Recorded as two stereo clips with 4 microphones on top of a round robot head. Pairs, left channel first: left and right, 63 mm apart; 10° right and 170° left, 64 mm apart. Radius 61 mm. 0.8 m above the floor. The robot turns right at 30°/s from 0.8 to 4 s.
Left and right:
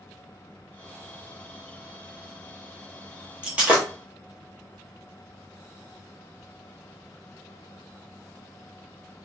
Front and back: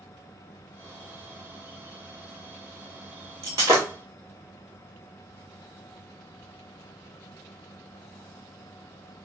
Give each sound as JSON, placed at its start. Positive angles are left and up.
{"t": 3.4, "sound": "breaking glass", "azimuth_deg": -155, "distance_m": 0.9}